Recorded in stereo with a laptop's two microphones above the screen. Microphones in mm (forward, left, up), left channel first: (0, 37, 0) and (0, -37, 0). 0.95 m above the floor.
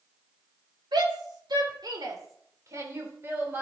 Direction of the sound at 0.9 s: 80° right.